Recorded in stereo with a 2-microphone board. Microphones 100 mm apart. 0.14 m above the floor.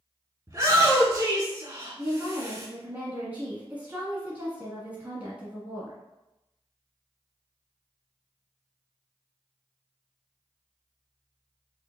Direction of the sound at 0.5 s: 30° right (ahead or behind).